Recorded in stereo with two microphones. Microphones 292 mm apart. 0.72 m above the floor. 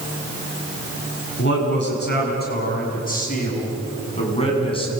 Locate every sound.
1.4 s a man speaking: 40° left (ahead or behind), 8 m; by 4.9 s 15° left (ahead or behind), 8 m